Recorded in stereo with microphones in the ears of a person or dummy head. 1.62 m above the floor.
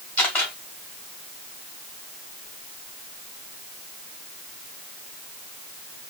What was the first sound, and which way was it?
A camera shutter, 10° left (ahead or behind).